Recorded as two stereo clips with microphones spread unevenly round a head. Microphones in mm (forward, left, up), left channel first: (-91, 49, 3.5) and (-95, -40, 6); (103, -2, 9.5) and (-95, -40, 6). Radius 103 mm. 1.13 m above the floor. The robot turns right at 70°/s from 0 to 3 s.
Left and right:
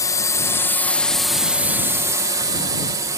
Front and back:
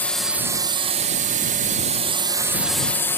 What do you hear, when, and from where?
0.0 s a drone: 85° left; by 3.2 s 65° right